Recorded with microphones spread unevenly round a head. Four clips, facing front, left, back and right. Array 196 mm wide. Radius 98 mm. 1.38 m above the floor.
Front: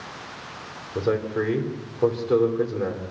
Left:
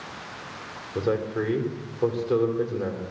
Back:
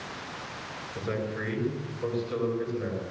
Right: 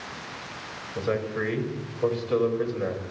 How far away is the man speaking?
About 4.5 m.